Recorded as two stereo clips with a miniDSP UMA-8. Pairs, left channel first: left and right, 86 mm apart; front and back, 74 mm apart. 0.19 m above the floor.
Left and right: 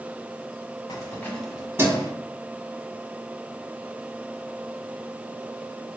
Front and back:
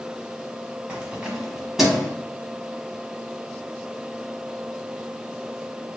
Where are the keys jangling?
105° left, 1.1 m; by 2.1 s 90° right, 1.2 m.